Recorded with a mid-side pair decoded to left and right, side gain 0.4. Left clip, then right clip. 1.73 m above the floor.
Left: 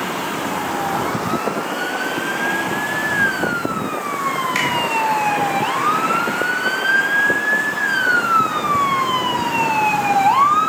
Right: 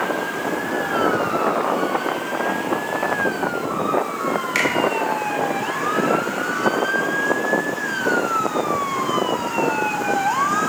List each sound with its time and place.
4.5 s a finger snap: 15° right, 1.0 m